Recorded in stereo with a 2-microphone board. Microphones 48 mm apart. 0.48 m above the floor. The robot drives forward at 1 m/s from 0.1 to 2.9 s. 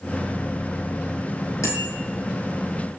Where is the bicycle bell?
85° left, 7 m.